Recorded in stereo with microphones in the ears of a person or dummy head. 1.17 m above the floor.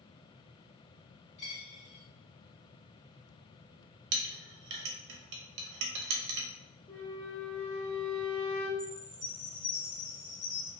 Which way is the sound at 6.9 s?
5° left (ahead or behind).